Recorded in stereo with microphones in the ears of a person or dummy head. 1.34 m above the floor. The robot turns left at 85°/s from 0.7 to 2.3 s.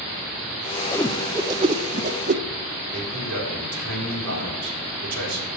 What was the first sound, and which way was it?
A whoosh, 15° left (ahead or behind).